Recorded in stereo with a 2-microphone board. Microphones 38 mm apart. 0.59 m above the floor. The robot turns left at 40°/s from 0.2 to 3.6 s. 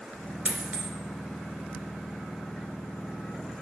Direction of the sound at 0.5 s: 40° right (ahead or behind).